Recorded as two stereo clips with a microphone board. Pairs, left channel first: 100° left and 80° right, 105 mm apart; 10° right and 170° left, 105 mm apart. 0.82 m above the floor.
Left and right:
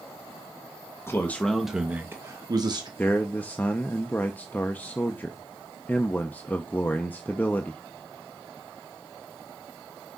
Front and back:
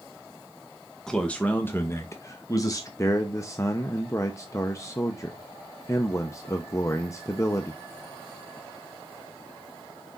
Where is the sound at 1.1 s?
65° left, 0.9 m; by 2.9 s 60° right, 1.2 m.